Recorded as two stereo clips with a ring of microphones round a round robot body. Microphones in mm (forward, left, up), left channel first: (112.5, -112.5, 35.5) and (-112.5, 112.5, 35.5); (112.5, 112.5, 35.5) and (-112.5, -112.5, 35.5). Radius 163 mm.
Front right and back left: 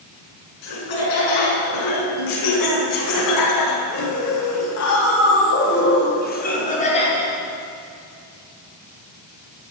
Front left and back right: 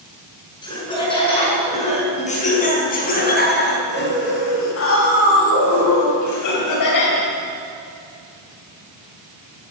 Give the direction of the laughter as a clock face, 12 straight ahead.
1 o'clock.